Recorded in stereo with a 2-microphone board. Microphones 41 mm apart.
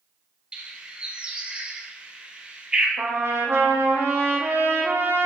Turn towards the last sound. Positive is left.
turn(degrees=-80)